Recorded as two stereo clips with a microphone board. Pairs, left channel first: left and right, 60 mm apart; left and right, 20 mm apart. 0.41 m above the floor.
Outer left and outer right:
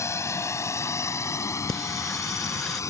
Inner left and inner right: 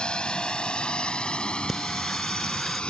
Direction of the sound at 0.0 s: 50° left (ahead or behind).